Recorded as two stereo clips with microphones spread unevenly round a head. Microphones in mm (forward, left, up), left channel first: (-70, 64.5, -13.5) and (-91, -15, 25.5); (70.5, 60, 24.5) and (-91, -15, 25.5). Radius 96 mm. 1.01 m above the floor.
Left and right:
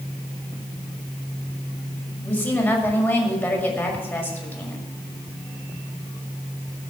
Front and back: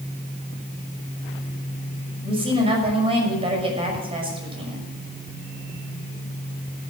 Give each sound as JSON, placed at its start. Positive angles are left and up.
{"t": 2.2, "sound": "a woman speaking", "azimuth_deg": 145, "distance_m": 5.5}